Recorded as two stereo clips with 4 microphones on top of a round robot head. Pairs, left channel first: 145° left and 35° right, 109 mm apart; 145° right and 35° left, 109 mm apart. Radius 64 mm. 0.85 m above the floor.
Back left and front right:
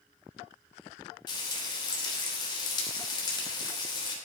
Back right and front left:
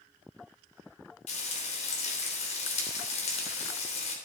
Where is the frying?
165° right, 3 m.